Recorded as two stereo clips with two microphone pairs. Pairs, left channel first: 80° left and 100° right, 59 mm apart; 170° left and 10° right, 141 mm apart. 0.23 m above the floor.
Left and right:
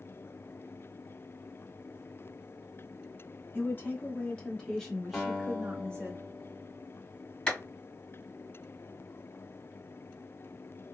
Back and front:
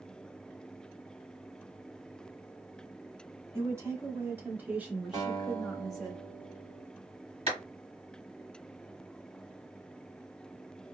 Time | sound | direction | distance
3.5 | a woman speaking | 50° left | 1.4 m
5.1 | a guitar | straight ahead | 1.6 m
7.5 | a clap | 5° left | 1.6 m